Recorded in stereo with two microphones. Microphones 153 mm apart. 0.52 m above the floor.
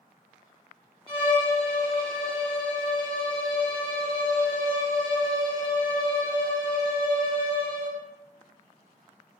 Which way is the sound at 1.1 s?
35° right (ahead or behind).